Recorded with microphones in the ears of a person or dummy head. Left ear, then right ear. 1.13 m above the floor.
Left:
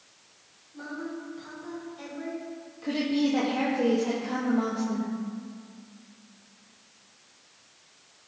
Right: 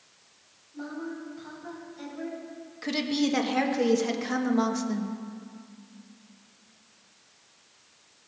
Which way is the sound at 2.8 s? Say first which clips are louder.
Even; 60° right (ahead or behind).